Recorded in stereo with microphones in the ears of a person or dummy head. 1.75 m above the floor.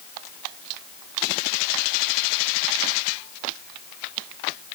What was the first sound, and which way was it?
Only background noise.